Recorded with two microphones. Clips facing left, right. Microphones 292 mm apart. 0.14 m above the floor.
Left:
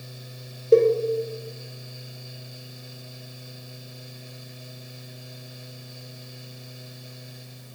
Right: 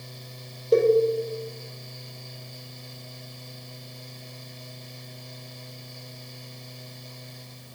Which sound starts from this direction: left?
A cowbell, at 0.7 s.